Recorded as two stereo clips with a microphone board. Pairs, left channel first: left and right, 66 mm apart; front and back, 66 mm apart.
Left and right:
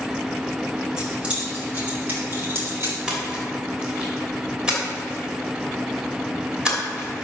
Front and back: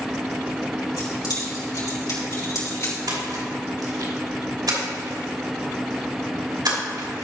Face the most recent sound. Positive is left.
turn(degrees=-165)